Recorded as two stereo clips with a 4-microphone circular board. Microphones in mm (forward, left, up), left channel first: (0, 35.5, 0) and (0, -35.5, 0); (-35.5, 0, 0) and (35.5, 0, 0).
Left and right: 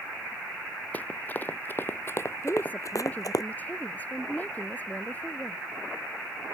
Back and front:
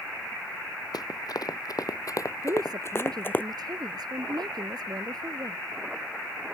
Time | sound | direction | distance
0.9 | running footsteps | 155° left | ?
2.4 | a woman speaking | 20° left | ?